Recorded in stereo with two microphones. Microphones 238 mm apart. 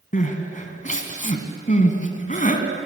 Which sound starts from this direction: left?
Crying, at 0.1 s.